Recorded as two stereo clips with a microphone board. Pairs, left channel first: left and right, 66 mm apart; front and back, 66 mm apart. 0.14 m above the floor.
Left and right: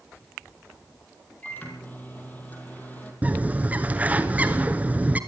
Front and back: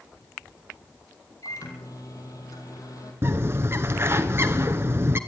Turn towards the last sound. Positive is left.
turn(degrees=-145)